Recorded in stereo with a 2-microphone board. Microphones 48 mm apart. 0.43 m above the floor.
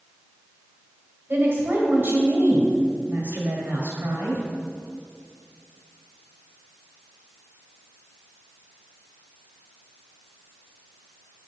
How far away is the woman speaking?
About 1.9 m.